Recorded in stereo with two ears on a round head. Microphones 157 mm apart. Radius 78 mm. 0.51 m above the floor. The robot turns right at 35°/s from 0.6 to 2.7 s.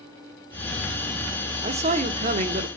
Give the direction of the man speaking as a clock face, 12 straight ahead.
4 o'clock.